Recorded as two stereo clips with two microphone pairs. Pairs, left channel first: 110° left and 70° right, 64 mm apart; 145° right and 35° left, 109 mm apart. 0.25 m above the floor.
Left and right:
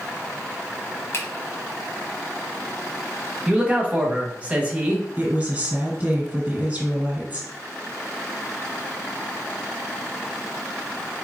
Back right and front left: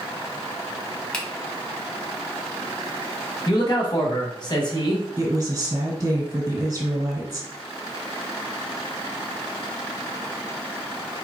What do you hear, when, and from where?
1.1 s a finger snap: 135° left, 1.4 m
3.5 s a man speaking: 130° right, 1.3 m
5.2 s a woman speaking: 20° right, 1.9 m